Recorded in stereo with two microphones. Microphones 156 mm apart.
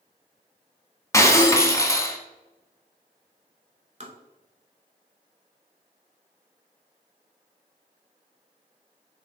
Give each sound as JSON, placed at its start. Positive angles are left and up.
{"t": 1.1, "sound": "breaking glass", "side_deg": 20, "distance_m": 0.6}
{"t": 4.0, "sound": "tapping", "side_deg": -50, "distance_m": 0.8}